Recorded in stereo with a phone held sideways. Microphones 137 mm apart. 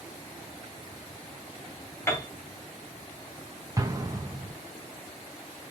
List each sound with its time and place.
2.1 s a piano: 20° left (ahead or behind), 1.9 m
3.8 s an explosion: 25° right (ahead or behind), 1.1 m